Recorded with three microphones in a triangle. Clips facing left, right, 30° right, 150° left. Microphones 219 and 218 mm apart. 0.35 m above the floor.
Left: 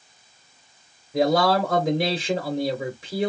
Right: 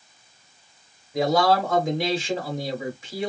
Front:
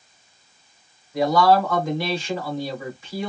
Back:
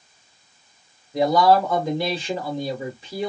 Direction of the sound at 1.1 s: 120° left.